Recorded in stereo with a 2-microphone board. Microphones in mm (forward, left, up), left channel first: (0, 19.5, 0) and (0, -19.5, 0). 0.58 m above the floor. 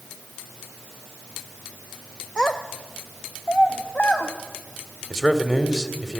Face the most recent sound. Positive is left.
turn(degrees=0)  # may be behind; listen again after turning